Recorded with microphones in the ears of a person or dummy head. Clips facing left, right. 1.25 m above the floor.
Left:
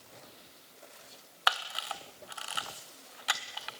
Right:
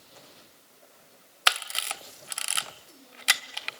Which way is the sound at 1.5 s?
35° right (ahead or behind).